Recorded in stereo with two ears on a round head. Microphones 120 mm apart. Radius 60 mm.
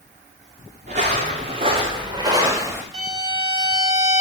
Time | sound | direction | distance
0.9 | footsteps | 60° right (ahead or behind) | 4 m
2.9 | a violin | 45° right (ahead or behind) | 2 m